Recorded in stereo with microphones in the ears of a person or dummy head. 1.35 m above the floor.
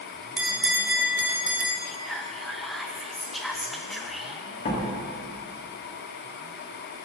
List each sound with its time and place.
0.4 s a bell: 5° right (ahead or behind), 0.7 m
1.9 s whispering: centre (ahead or behind), 0.5 m
4.7 s a door slam: 45° left (ahead or behind), 1.7 m